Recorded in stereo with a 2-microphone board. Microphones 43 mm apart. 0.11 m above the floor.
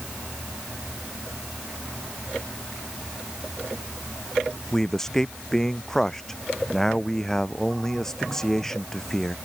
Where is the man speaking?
10° left (ahead or behind).